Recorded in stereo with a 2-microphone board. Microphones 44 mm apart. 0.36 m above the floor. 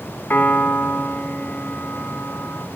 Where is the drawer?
I don't hear a drawer.